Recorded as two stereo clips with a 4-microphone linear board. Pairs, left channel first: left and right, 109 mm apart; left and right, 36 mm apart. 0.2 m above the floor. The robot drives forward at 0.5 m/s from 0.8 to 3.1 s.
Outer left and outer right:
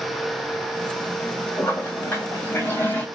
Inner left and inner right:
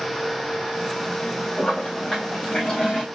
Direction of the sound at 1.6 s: 20° left (ahead or behind).